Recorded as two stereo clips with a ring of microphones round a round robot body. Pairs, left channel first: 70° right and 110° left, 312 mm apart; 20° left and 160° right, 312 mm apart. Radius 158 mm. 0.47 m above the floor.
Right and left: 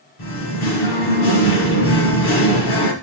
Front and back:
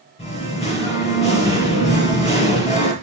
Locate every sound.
0.2 s singing: 50° right, 3 m